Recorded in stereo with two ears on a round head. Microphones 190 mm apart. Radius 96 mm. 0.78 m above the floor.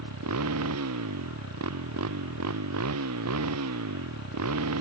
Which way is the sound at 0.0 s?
90° right.